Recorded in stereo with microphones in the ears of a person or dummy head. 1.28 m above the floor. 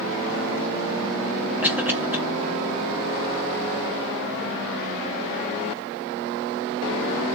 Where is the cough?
10° right (ahead or behind), 1.3 m.